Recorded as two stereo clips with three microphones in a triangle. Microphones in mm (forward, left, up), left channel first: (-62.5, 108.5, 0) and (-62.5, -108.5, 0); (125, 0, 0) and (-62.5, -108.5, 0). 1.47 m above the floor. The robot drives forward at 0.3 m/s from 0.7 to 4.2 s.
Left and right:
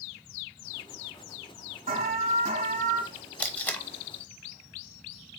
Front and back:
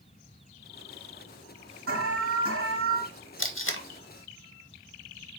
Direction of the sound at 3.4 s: 5° left.